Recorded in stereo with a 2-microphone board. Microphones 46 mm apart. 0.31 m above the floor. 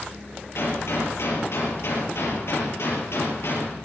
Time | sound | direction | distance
0.6 | a gunshot | 70° left (ahead or behind) | 5.5 m